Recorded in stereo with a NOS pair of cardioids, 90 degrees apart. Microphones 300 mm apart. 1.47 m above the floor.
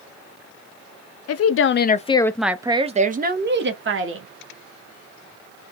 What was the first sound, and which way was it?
A woman speaking, 55° left.